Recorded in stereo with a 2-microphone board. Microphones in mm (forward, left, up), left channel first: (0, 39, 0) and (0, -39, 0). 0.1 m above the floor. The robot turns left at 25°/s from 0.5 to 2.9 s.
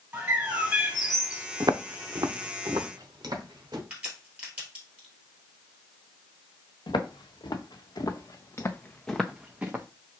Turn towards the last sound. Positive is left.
turn(degrees=-25)  # may be behind; listen again after turning